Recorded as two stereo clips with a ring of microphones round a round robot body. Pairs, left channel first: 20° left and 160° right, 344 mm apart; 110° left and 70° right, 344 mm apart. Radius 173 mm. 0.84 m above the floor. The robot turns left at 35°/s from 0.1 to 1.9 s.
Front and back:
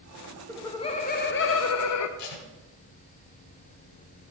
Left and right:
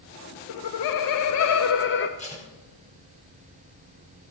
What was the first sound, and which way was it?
Laughter, 110° left.